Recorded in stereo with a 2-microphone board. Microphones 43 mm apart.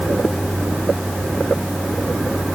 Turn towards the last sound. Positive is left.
No sound to turn to.